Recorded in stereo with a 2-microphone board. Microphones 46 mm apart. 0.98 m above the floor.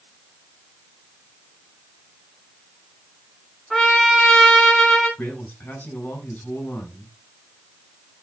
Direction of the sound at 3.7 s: 10° left (ahead or behind).